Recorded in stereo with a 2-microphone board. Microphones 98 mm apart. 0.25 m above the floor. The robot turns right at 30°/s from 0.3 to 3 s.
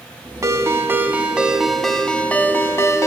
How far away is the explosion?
I don't hear an explosion.